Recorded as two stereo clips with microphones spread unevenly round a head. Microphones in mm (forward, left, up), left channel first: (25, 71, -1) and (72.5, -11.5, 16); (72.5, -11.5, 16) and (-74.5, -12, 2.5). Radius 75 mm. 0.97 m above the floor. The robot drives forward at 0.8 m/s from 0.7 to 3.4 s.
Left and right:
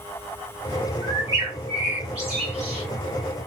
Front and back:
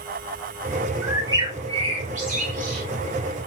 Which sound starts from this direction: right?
A bird, at 1.0 s.